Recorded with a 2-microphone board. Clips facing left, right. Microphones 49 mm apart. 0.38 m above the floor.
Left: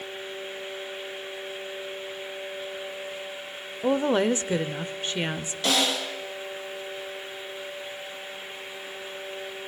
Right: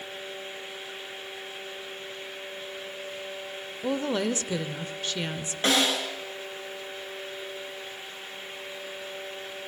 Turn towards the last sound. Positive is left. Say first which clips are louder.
# right 1 dB
turn(degrees=-35)  # may be behind; listen again after turning